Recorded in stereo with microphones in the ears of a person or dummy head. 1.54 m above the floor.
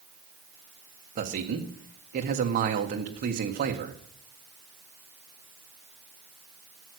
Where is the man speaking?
45° right (ahead or behind), 1.3 m.